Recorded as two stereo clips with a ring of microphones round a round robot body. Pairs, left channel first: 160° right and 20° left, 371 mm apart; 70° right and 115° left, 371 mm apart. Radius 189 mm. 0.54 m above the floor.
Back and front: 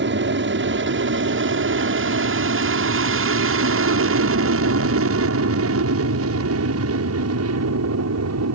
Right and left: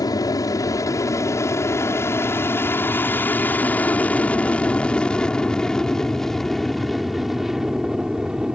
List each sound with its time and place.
0.0 s an aircraft: 5° left; by 8.6 s 25° left